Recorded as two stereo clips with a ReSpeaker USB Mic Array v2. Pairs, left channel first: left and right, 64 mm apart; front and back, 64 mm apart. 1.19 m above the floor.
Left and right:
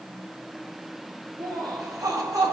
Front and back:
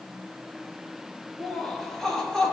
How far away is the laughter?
About 2 m.